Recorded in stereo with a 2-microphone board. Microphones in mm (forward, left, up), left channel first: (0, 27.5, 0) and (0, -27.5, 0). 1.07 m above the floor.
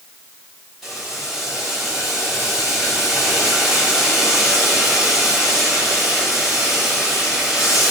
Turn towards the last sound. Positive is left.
turn(degrees=-5)  # may be behind; listen again after turning